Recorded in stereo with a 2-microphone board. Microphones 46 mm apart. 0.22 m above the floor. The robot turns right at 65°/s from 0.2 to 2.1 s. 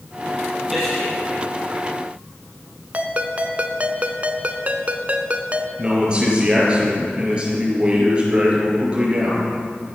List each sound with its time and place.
0.7 s a man speaking: centre (ahead or behind), 5.5 m; by 1.1 s 30° left (ahead or behind), 5.5 m
2.9 s a ringtone: 30° right (ahead or behind), 0.8 m
5.8 s a man speaking: 20° right (ahead or behind), 5 m